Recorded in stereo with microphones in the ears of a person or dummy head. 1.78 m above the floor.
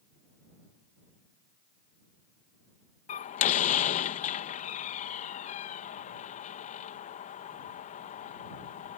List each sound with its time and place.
3.1 s a door slam: 45° left (ahead or behind)